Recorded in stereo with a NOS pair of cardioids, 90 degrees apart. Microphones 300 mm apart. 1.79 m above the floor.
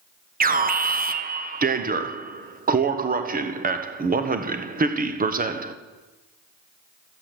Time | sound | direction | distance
0.4 | an alarm | 30° right | 1.1 m